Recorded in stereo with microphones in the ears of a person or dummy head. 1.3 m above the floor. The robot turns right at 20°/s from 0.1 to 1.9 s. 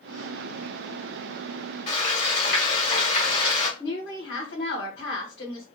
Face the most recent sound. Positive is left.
turn(degrees=65)  # may be behind; listen again after turning